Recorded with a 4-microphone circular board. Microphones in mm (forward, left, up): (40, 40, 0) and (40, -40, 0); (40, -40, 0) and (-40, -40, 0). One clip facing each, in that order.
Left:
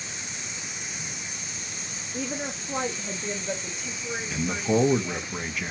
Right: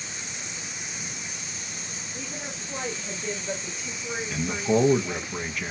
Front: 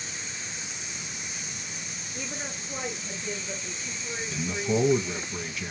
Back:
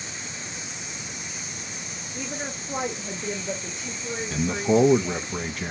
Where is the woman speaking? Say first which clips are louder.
Left 7 dB, back 4 dB; 95° left, 0.7 m; by 5.3 s 175° right, 2 m.